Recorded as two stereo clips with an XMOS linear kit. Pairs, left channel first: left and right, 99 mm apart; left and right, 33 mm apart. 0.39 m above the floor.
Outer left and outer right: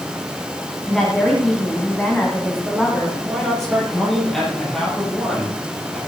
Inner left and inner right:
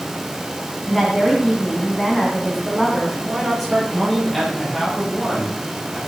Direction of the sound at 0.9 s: 5° left (ahead or behind).